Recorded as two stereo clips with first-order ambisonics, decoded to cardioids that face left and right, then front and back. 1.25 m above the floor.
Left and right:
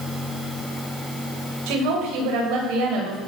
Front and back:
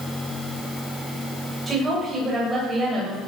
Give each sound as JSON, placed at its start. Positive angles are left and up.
{"t": 1.7, "sound": "a woman speaking", "azimuth_deg": -100, "distance_m": 7.0}